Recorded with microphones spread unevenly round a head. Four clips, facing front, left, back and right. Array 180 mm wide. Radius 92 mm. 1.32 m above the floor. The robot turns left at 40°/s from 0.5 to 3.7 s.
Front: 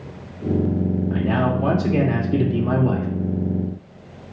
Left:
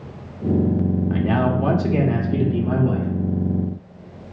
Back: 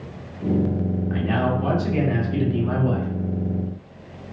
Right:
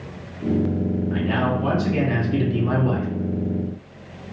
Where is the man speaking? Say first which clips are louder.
Left 2 dB, even; 65° left, 2 m; by 3.1 s 10° right, 2 m.